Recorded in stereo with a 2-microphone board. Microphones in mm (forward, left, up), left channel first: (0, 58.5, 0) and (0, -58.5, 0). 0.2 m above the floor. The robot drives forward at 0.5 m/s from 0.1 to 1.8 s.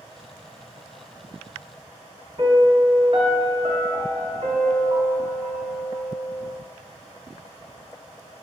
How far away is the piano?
About 0.8 m.